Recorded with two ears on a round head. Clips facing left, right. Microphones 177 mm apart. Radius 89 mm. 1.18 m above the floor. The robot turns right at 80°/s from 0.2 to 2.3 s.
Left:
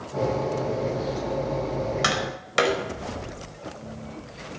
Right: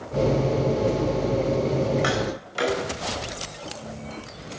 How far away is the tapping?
About 4 m.